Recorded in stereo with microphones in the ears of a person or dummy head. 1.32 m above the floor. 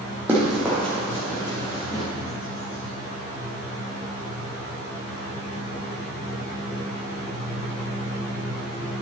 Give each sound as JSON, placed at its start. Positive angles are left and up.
{"t": 0.3, "sound": "running footsteps", "side_deg": -5, "distance_m": 3.0}